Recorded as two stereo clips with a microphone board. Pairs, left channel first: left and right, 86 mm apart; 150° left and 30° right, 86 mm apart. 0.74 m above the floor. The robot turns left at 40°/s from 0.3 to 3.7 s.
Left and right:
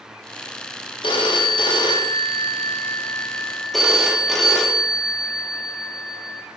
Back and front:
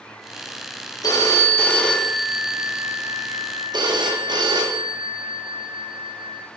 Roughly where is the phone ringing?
Left.